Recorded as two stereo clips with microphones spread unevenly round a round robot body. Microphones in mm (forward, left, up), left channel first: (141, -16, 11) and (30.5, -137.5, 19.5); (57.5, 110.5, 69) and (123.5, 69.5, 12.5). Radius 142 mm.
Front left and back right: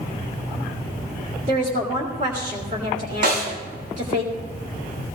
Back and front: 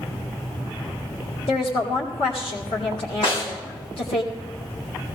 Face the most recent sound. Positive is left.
turn(degrees=-145)